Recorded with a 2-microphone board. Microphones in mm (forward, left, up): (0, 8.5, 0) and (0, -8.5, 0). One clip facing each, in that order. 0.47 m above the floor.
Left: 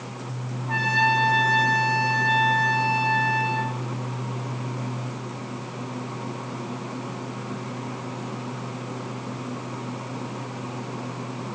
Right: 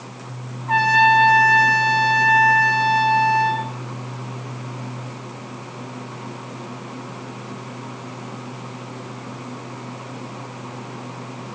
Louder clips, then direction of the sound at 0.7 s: Right 7 dB; 35° right (ahead or behind).